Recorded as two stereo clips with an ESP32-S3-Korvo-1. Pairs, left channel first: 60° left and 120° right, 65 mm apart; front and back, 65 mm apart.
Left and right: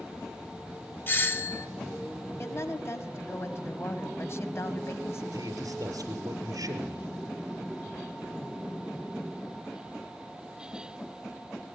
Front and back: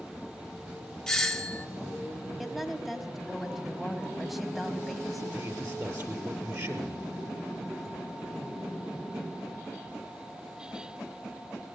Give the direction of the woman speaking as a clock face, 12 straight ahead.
9 o'clock.